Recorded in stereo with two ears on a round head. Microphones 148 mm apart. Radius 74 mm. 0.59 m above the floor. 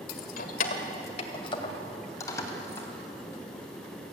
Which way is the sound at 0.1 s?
60° left (ahead or behind).